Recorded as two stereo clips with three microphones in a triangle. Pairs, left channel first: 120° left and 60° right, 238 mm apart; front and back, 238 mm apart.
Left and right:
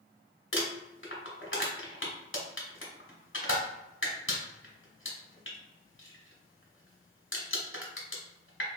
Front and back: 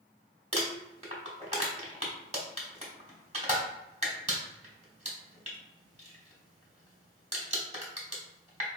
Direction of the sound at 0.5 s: 125° left.